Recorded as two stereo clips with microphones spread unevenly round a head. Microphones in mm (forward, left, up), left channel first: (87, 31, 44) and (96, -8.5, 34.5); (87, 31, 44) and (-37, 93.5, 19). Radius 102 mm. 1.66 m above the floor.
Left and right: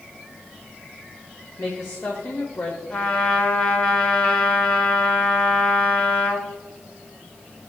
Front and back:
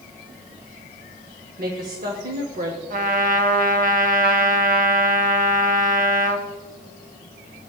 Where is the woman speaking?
160° left, 1.1 m.